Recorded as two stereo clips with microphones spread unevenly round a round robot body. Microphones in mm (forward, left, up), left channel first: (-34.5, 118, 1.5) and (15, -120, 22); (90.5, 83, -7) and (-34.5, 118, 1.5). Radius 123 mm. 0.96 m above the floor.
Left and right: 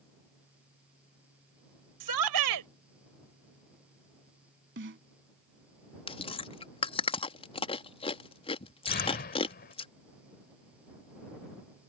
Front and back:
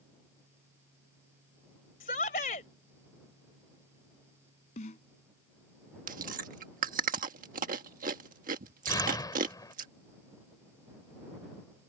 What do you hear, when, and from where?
2.0 s a shout: 70° right
4.8 s a snare drum: 45° right
6.1 s chewing: 170° left
8.9 s an explosion: 45° left